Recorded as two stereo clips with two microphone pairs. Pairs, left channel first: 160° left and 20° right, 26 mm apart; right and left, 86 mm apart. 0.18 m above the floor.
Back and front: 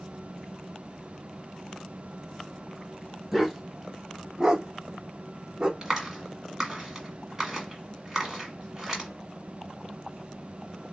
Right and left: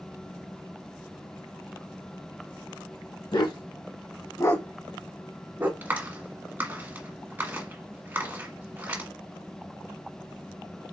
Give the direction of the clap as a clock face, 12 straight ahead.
11 o'clock.